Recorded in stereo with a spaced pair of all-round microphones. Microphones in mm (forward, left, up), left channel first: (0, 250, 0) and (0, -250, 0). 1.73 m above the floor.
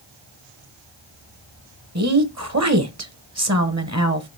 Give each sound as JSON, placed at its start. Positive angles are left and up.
{"t": 1.9, "sound": "a woman speaking", "side_deg": -30, "distance_m": 1.1}